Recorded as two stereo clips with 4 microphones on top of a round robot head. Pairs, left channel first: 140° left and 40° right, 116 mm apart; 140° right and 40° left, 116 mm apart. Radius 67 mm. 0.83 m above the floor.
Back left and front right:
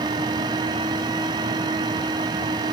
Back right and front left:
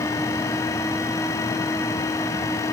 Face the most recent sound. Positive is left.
No sound to turn to.